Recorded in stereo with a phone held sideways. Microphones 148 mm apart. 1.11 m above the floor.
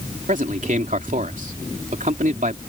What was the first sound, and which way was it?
A man speaking, 60° right (ahead or behind).